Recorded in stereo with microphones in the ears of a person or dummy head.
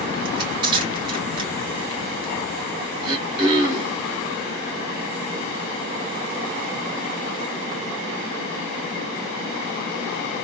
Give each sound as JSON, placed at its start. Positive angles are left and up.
{"t": 0.2, "sound": "crushing", "side_deg": -35, "distance_m": 1.8}
{"t": 3.0, "sound": "throat clearing", "side_deg": -30, "distance_m": 1.3}